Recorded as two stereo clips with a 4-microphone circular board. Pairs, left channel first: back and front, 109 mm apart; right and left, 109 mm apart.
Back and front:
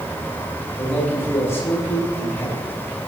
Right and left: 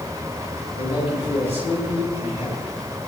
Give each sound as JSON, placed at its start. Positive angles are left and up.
{"t": 0.8, "sound": "a man speaking", "azimuth_deg": -115, "distance_m": 9.5}